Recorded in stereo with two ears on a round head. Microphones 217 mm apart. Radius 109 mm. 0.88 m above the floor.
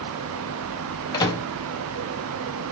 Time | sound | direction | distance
1.1 | a microwave | 15° left (ahead or behind) | 0.5 m